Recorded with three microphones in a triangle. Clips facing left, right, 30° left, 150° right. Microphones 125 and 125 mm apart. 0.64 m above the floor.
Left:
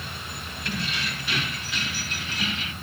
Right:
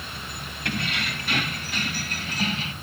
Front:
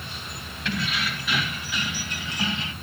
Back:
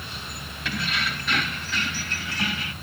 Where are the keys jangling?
65° right, 3 m; by 2.7 s 35° right, 2.5 m.